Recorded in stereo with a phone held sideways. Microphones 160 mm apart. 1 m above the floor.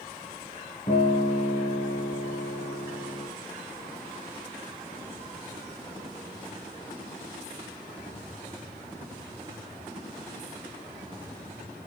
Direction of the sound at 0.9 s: 45° left (ahead or behind).